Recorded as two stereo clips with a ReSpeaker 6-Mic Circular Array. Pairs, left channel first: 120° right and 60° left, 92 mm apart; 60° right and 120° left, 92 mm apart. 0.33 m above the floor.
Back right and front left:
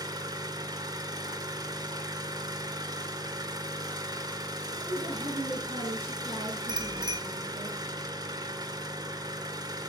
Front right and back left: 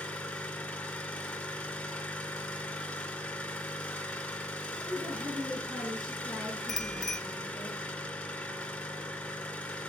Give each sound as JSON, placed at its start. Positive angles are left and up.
{"t": 0.0, "sound": "an engine running", "azimuth_deg": 20, "distance_m": 2.5}
{"t": 4.8, "sound": "a woman speaking", "azimuth_deg": 70, "distance_m": 6.0}
{"t": 6.7, "sound": "a bicycle bell", "azimuth_deg": 25, "distance_m": 2.5}